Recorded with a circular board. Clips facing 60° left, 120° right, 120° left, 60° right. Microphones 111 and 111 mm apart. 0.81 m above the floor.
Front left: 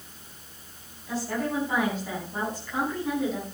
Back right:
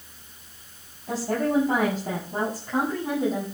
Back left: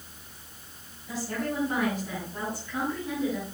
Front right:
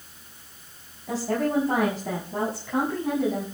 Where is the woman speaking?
75° right, 8 m; by 3.4 s 60° right, 9 m.